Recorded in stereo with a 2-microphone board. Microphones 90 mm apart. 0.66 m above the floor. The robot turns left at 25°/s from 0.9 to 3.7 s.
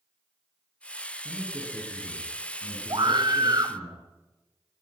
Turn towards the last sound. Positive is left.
turn(degrees=-45)  # may be behind; listen again after turning